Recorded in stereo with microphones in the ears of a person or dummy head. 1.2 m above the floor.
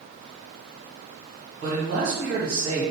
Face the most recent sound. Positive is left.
turn(degrees=-55)  # may be behind; listen again after turning